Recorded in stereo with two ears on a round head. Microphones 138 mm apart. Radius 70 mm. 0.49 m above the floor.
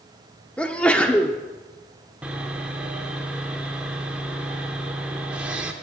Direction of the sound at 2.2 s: 10° right (ahead or behind).